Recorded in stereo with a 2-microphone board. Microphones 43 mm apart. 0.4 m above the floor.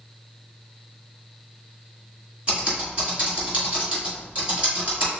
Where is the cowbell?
I don't hear a cowbell.